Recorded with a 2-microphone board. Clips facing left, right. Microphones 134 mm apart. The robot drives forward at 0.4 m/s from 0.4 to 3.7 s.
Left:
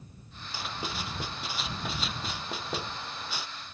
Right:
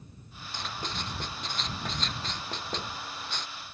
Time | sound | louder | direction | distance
0.5 | writing | left 1 dB | 10° left (ahead or behind) | ?